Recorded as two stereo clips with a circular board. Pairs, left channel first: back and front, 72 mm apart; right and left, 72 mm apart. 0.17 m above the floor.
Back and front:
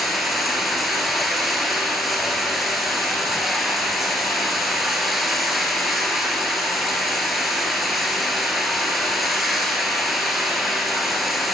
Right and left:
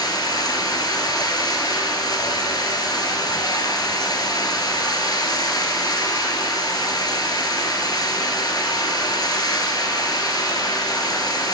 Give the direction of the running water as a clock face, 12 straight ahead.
3 o'clock.